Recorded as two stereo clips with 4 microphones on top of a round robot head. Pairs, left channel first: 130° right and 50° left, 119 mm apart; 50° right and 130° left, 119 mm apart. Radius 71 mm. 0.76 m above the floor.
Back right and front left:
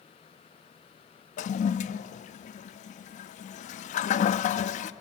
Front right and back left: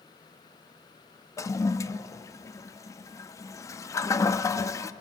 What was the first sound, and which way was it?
A toilet flushing, 115° right.